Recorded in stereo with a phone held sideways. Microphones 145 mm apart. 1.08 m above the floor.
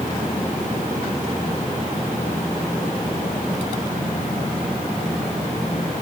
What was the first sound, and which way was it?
Only background noise.